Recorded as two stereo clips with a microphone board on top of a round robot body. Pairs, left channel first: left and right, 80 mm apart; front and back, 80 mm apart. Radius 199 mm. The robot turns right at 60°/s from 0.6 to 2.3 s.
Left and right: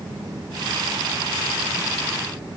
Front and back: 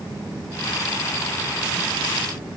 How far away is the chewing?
I don't hear chewing.